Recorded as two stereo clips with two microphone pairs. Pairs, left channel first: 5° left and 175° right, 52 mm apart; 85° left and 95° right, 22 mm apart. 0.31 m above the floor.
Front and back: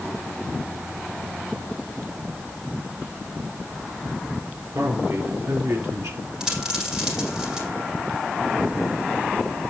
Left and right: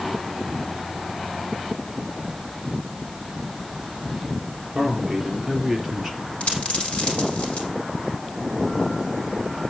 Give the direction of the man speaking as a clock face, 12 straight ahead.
6 o'clock.